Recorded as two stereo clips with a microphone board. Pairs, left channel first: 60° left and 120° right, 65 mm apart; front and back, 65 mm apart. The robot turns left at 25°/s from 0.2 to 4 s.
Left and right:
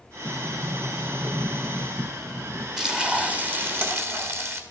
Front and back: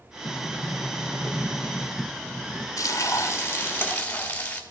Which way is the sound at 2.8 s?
35° right.